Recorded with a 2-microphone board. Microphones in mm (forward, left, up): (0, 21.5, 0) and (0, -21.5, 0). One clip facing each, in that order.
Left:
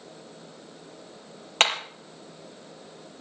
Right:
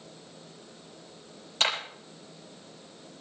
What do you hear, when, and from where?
1.6 s hammering: 55° left (ahead or behind), 5 m